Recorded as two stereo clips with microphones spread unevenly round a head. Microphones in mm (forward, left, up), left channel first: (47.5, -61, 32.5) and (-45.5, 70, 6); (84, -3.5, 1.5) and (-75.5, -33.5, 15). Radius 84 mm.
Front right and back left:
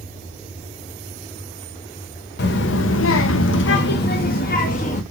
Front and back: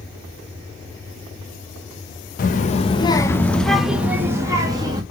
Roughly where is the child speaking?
Ahead right.